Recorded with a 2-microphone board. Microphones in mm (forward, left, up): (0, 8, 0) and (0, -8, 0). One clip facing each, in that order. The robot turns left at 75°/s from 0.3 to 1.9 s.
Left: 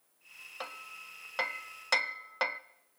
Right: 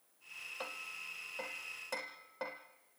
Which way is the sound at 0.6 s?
15° left (ahead or behind).